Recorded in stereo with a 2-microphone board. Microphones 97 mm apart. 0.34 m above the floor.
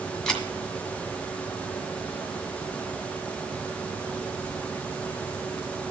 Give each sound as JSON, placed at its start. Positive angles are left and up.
{"t": 0.3, "sound": "a camera shutter", "side_deg": 5, "distance_m": 2.0}